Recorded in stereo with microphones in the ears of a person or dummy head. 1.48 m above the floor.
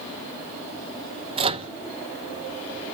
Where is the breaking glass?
I don't hear breaking glass.